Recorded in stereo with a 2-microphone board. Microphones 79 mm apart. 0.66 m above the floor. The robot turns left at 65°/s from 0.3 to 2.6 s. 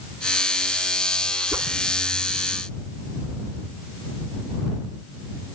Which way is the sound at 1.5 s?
30° right (ahead or behind).